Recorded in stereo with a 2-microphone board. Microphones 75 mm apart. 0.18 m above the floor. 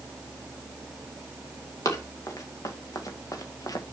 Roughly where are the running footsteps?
Left.